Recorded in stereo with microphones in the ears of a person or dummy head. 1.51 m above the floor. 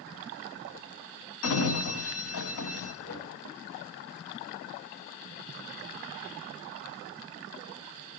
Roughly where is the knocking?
Left.